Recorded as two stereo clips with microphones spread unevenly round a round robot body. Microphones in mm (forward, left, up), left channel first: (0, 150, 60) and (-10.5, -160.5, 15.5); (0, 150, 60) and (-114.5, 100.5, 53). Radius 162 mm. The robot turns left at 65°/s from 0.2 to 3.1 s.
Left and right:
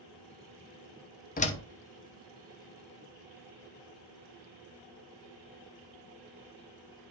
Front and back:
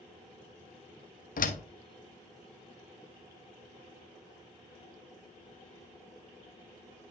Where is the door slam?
20° left, 1.0 m; by 1.6 s 5° left, 1.0 m.